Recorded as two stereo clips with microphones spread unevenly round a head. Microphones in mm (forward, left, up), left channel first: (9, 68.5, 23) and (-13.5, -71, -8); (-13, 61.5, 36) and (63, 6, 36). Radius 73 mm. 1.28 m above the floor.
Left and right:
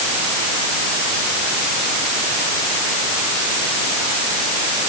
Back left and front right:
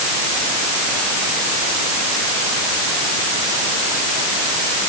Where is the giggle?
No giggle in this recording.